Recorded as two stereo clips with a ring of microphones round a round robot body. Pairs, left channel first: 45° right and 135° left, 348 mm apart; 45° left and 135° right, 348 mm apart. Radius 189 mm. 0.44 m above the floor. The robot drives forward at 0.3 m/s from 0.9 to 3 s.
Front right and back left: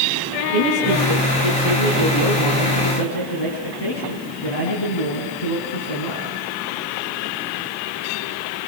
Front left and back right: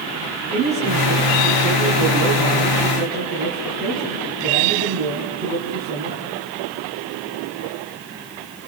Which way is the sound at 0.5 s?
65° right.